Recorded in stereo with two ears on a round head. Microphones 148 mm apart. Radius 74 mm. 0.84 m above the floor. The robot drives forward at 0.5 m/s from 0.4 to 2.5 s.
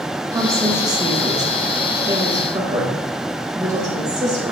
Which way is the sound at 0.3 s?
20° right (ahead or behind).